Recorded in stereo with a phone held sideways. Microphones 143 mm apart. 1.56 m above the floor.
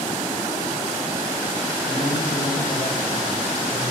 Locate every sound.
1.9 s a man speaking: 45° left (ahead or behind), 2 m